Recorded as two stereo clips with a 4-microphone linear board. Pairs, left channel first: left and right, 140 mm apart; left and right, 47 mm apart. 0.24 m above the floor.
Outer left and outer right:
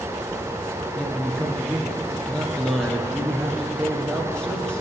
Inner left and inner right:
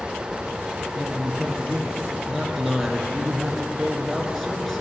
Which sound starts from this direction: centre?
A man speaking, at 0.9 s.